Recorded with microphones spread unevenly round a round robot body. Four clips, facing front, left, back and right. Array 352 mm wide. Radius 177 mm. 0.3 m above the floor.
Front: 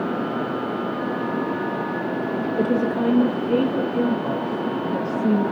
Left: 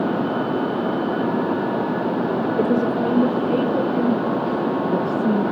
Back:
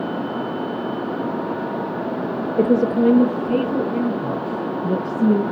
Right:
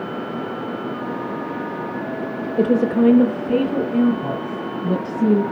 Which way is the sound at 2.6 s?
155° right.